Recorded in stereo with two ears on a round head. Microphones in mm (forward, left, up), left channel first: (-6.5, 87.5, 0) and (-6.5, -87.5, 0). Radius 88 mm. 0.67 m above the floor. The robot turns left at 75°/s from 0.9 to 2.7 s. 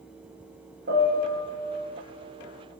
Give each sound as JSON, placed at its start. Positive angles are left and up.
{"t": 0.9, "sound": "a piano", "azimuth_deg": -55, "distance_m": 4.5}